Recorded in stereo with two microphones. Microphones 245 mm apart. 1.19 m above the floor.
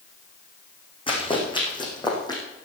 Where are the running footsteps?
20° left (ahead or behind), 4.5 m; by 2.4 s 15° left (ahead or behind), 4 m.